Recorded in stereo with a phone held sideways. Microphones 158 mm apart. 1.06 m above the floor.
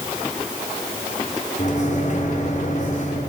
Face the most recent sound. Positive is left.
turn(degrees=50)  # may be behind; listen again after turning